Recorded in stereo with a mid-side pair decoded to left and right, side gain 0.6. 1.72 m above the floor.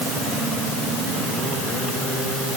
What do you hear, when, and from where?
Only background noise.